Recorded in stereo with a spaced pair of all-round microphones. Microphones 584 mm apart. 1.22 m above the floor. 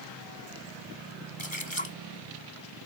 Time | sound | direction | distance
1.4 | a splash | 50° left (ahead or behind) | ?